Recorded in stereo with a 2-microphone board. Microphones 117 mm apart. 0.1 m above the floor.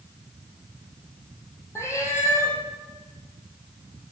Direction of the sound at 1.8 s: 25° left (ahead or behind).